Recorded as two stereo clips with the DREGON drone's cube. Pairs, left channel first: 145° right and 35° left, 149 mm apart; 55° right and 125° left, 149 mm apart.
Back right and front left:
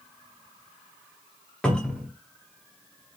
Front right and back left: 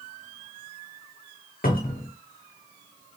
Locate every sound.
1.6 s a cupboard door: 60° right, 0.7 m